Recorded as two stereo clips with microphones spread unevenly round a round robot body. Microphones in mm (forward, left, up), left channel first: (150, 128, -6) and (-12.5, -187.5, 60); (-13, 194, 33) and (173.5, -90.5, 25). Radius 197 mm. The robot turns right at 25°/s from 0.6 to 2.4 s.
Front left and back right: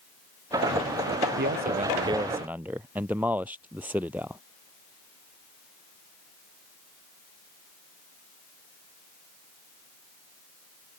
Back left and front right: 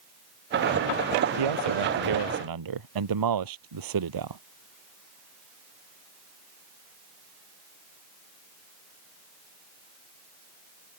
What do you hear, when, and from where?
1.4 s a man speaking: 60° right; by 4.4 s 30° right